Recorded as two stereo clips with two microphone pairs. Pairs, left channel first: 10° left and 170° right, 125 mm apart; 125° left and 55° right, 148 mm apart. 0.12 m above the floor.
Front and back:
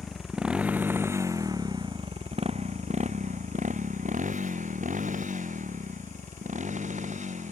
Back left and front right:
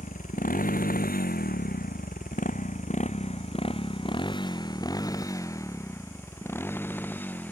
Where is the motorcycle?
95° left; by 7.5 s 155° right.